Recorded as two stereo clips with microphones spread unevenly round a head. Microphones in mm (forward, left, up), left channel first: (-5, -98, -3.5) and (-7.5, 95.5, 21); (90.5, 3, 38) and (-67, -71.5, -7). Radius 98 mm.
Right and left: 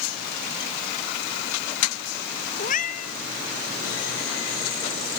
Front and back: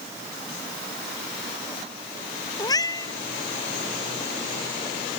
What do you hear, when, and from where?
2.6 s a cat meowing: 35° right